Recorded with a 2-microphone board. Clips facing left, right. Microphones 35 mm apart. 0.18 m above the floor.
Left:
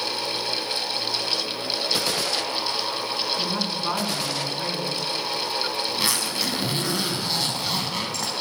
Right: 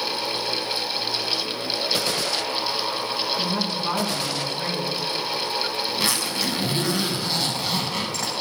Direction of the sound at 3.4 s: 10° left (ahead or behind).